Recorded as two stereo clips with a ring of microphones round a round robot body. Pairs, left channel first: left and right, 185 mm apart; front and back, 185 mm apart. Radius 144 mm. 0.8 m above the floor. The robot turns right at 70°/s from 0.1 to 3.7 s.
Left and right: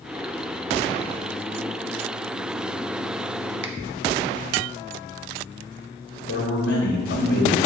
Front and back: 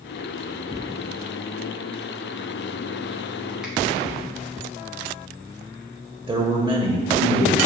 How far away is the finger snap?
About 0.7 m.